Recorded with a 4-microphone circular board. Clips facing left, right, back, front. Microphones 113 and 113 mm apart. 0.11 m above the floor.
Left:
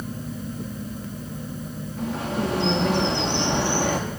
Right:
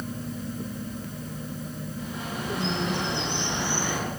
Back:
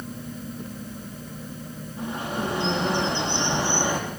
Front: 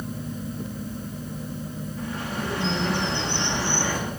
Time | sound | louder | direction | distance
2.0 | a bird | left 9 dB, back 3 dB | 115° left | 6.5 m